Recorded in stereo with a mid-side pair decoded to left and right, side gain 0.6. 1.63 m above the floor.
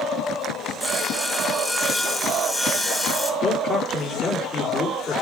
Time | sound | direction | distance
0.8 | sawing | 5° left | 2 m
3.4 | a man speaking | 40° left | 7 m